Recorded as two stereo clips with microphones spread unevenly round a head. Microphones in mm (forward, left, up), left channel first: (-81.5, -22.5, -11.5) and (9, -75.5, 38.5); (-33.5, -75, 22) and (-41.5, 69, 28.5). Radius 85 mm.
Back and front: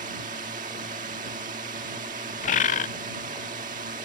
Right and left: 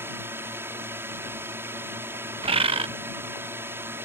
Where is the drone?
15° left.